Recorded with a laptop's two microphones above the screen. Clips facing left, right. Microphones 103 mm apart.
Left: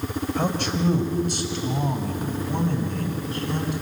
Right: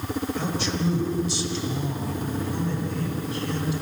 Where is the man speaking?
55° left (ahead or behind), 3.5 m; by 3.7 s 50° left (ahead or behind), 6.5 m.